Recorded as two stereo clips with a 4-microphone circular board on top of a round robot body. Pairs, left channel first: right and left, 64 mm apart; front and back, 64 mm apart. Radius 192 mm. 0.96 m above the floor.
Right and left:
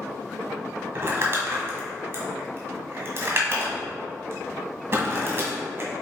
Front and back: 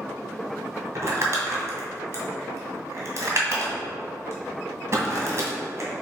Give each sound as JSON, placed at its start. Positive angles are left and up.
{"t": 0.9, "sound": "crumpling", "azimuth_deg": 135, "distance_m": 2.0}